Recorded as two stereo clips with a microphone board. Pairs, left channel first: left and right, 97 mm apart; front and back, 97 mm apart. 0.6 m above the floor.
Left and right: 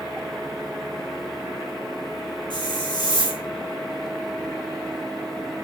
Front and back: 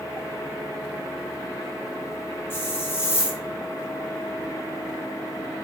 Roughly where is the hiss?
Ahead left.